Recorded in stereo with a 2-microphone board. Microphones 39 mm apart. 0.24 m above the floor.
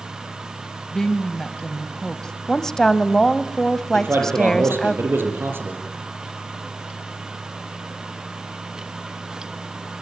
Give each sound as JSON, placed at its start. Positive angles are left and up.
{"t": 0.9, "sound": "a woman speaking", "side_deg": 15, "distance_m": 1.0}
{"t": 2.5, "sound": "a woman speaking", "side_deg": 10, "distance_m": 1.1}
{"t": 3.9, "sound": "a man speaking", "side_deg": -75, "distance_m": 6.5}